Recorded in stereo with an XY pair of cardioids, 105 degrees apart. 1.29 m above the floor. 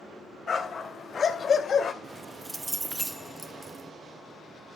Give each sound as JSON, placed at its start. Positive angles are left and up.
{"t": 0.5, "sound": "a dog barking", "azimuth_deg": 45, "distance_m": 2.5}
{"t": 2.0, "sound": "keys jangling", "azimuth_deg": -20, "distance_m": 0.6}